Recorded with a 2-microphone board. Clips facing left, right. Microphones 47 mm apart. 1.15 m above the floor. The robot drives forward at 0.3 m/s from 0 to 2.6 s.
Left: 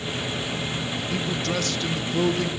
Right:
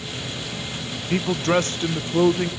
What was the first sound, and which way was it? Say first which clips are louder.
A man speaking: right 8 dB; 45° right (ahead or behind).